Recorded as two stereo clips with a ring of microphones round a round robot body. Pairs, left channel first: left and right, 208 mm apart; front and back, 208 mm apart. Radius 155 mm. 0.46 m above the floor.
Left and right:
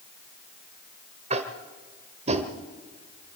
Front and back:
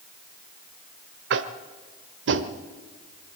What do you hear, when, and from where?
1.3 s tapping: 150° right, 1.0 m